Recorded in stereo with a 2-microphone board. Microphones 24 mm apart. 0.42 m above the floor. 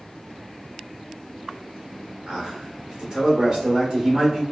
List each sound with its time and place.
2.3 s a man speaking: 30° right (ahead or behind), 1.2 m